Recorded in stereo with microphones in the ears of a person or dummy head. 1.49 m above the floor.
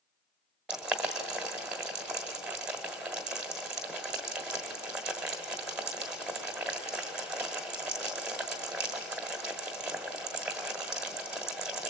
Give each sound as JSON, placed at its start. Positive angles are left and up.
{"t": 0.7, "sound": "boiling", "side_deg": -5, "distance_m": 1.4}